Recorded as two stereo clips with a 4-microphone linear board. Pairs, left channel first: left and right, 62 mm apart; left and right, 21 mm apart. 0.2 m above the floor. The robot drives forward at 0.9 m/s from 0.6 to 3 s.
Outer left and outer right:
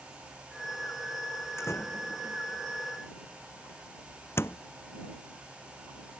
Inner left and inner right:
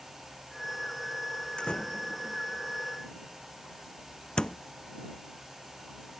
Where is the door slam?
45° left (ahead or behind); by 4.6 s 40° left (ahead or behind).